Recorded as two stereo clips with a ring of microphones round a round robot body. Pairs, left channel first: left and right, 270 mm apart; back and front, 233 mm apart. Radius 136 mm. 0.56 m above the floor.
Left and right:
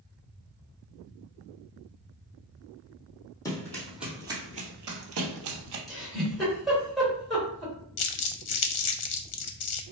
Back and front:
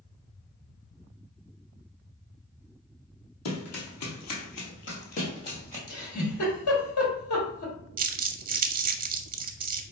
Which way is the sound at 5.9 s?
Straight behind.